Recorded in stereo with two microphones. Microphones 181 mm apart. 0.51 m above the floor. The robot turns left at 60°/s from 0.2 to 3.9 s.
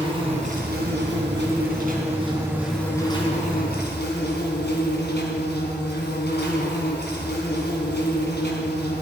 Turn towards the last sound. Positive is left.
turn(degrees=110)